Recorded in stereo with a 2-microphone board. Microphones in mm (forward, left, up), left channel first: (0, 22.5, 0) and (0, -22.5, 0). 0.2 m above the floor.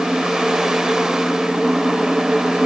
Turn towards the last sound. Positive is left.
No sound to turn to.